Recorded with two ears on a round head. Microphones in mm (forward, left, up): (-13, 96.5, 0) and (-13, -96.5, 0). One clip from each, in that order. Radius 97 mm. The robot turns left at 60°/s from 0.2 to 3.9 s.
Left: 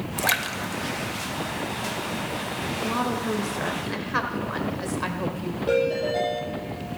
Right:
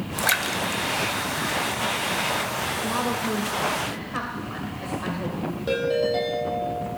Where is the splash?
5° left (ahead or behind), 0.6 m; by 2.0 s 55° right (ahead or behind), 0.6 m.